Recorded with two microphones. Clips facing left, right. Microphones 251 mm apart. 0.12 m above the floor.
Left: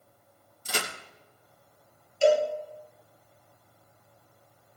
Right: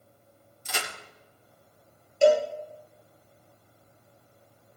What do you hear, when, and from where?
0.7 s a crack: 35° left (ahead or behind), 3.5 m
2.2 s a cowbell: 55° right (ahead or behind), 3 m